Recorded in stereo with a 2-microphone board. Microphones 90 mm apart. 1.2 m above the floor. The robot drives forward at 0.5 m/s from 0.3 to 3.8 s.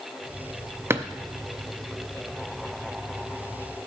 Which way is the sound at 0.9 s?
30° right (ahead or behind).